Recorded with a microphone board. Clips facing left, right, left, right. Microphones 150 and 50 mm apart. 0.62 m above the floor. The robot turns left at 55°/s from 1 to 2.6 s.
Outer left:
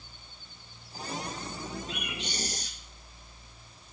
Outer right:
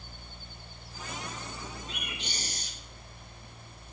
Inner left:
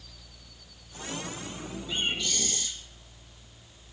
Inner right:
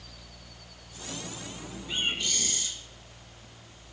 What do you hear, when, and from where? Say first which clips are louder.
1.9 s a bird: outer left 4 dB, even; 45° right, 2 m; by 2.7 s 85° right, 2 m